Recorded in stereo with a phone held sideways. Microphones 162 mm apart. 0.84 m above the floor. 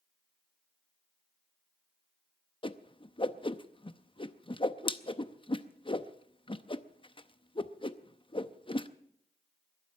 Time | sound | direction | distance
2.6 | a whoosh | 30° left (ahead or behind) | 0.6 m